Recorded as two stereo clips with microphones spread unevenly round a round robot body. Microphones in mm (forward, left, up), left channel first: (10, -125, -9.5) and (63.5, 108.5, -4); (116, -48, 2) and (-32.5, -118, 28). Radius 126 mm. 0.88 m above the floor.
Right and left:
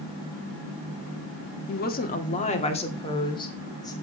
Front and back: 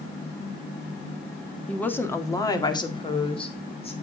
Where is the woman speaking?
55° right, 1.4 m; by 3.9 s 30° right, 3 m.